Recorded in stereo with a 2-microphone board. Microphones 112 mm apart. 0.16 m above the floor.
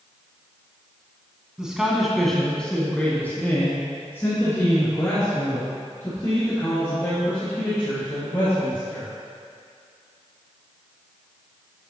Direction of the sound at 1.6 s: 5° right (ahead or behind).